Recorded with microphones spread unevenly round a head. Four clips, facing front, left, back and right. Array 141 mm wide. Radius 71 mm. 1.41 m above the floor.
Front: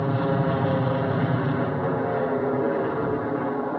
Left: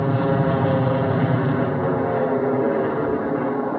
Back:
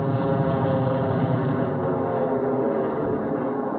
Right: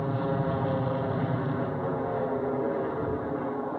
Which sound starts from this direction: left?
An aircraft, at 0.0 s.